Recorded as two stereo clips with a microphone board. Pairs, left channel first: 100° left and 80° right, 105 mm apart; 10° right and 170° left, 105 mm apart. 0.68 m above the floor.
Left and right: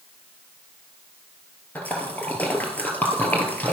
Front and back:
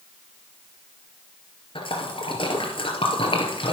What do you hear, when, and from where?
1.8 s a splash: 25° left, 2.5 m